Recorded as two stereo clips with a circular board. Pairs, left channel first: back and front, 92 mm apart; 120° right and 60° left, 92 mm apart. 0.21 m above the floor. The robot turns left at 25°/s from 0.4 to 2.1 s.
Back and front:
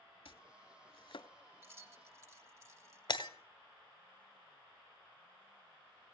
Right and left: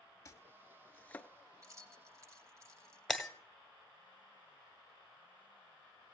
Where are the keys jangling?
40° left, 1.0 m; by 3.3 s 30° left, 1.0 m.